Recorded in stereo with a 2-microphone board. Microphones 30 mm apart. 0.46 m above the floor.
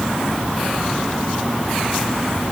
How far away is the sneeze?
I don't hear a sneeze.